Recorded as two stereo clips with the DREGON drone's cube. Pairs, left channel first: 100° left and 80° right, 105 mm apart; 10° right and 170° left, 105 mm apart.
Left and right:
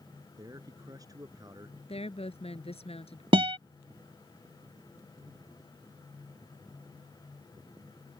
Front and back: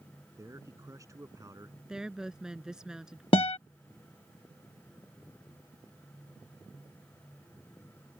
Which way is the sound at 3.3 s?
45° right.